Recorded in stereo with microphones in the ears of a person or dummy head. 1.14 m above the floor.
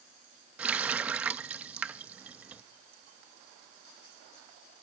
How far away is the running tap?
About 0.6 m.